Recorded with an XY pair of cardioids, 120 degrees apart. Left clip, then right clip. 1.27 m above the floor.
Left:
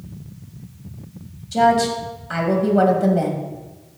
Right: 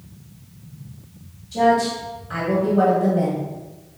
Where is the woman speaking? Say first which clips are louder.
Left 2 dB; 45° left, 1.8 m.